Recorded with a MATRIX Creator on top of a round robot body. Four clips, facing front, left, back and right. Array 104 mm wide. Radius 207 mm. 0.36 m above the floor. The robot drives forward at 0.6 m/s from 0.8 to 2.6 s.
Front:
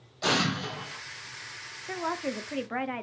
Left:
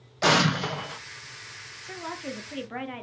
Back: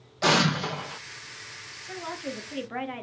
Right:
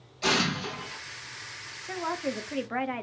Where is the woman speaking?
25° right, 1.4 m; by 3.0 s 50° right, 1.2 m.